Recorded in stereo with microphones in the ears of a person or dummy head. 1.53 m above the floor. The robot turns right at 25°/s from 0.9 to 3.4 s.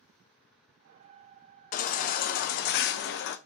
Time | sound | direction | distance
1.7 | a baby crying | 60° left | 0.6 m